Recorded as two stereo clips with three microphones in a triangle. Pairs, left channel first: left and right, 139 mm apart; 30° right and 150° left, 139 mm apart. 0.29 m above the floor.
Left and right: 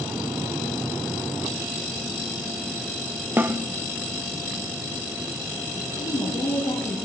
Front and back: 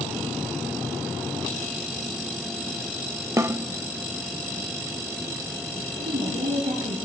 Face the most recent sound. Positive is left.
turn(degrees=160)